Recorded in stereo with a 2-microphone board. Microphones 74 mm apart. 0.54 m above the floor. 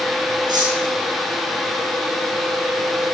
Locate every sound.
0.5 s cutlery clinking: 80° right, 5 m